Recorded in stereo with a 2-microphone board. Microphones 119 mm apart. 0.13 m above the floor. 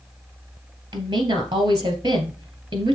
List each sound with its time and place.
0.9 s a woman speaking: 40° right (ahead or behind), 2 m